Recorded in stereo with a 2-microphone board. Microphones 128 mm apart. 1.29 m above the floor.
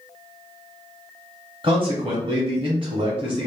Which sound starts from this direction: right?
A man speaking, at 1.6 s.